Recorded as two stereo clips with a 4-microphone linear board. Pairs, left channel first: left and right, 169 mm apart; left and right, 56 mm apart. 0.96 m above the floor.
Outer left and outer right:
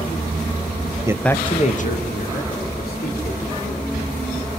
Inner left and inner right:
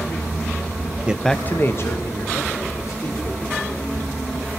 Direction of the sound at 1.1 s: 20° right (ahead or behind).